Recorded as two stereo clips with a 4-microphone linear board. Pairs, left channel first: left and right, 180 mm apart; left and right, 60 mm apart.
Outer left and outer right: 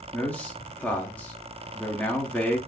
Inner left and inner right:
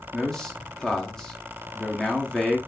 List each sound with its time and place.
0.1 s a man speaking: 10° left (ahead or behind), 0.6 m